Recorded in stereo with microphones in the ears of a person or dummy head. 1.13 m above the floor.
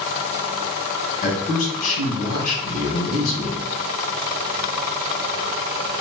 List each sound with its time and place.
1.2 s a man speaking: 45° left (ahead or behind), 1.4 m